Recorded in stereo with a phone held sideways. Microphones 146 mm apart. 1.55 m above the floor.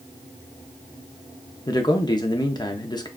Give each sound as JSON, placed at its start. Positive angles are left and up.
{"t": 1.7, "sound": "a man speaking", "side_deg": 30, "distance_m": 0.6}